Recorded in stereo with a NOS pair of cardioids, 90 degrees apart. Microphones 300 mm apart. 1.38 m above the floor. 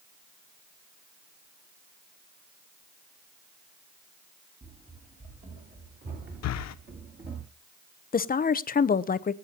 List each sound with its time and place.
4.6 s running footsteps: 25° right, 7.5 m; by 7.4 s 40° right, 6 m
6.4 s breathing: 65° left, 0.9 m
8.1 s a woman speaking: 30° left, 0.8 m